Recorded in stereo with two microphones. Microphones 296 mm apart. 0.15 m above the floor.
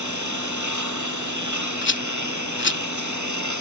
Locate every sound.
0.0 s a lawn mower: 75° right (ahead or behind)
1.8 s a rattle: 40° left (ahead or behind)